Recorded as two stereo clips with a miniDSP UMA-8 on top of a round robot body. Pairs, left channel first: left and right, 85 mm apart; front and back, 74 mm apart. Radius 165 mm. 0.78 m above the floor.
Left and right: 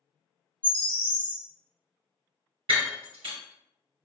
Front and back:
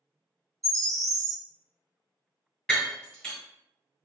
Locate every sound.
0.6 s a bird: 155° left, 1.0 m
2.7 s breaking glass: 85° right, 1.7 m